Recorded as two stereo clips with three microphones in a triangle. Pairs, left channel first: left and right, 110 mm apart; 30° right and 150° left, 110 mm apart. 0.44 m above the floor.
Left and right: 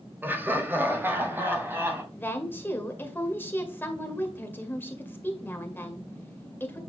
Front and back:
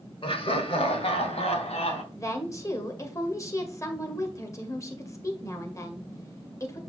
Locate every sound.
0.2 s laughter: 20° right, 1.6 m
2.1 s a woman speaking: 25° left, 1.7 m